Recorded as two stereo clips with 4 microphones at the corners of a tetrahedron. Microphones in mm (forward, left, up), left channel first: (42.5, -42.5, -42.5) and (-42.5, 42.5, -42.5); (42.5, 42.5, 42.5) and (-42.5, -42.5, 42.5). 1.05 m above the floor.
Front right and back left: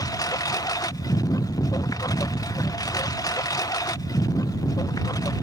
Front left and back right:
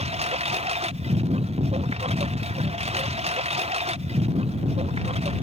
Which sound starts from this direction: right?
A lawn mower, at 0.0 s.